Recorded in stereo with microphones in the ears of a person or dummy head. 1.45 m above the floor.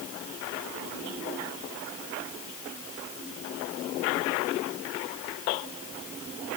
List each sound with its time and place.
Only background noise.